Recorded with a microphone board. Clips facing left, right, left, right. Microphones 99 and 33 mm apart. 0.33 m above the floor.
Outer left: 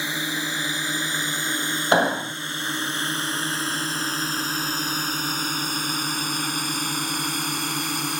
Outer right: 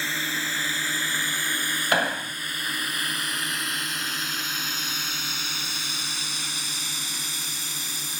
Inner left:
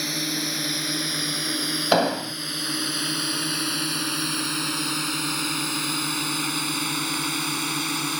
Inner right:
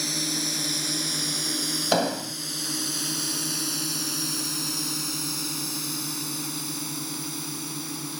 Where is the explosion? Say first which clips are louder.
Outer left 6 dB, inner left 4 dB; 25° left (ahead or behind).